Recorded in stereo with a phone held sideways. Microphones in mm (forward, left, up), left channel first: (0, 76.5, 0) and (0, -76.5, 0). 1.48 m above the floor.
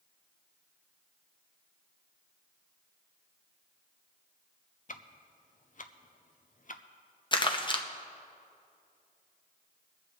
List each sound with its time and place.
4.9 s ticking: 60° left (ahead or behind), 0.5 m
7.3 s crumpling: 30° left (ahead or behind), 0.8 m